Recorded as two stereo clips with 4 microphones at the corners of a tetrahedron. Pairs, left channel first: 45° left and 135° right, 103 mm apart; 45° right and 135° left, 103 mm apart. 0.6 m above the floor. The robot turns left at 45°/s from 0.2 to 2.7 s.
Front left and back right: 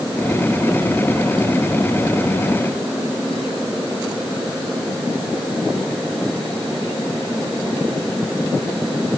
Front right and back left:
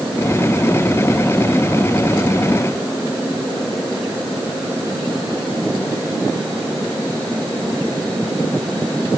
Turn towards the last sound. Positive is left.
No sound to turn to.